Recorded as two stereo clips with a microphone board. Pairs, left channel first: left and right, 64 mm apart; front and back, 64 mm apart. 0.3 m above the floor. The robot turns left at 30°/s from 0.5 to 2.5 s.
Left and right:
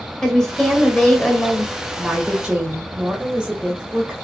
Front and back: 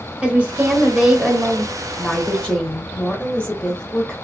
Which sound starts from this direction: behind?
A woman speaking, at 0.2 s.